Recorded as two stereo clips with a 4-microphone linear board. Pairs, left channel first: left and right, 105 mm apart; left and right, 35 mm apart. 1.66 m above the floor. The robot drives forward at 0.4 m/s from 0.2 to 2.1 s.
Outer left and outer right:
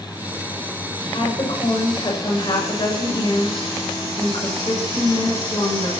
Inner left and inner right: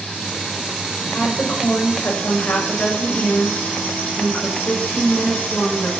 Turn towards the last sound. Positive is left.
turn(degrees=45)  # may be behind; listen again after turning